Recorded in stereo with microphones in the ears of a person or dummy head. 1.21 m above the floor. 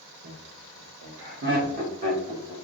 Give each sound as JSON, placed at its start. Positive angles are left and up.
{"t": 0.2, "sound": "laughter", "side_deg": -80, "distance_m": 1.1}